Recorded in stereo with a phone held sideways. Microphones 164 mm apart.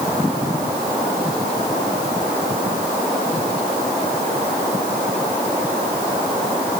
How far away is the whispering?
I don't hear whispering.